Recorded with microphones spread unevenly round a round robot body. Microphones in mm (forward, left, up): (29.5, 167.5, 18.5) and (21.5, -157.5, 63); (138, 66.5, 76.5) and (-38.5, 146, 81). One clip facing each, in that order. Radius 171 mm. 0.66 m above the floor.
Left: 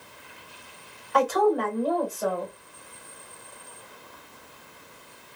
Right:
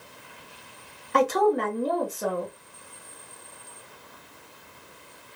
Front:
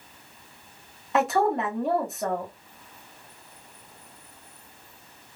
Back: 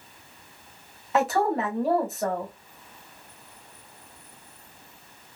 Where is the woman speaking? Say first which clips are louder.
Even, even; 115° right, 1.1 m.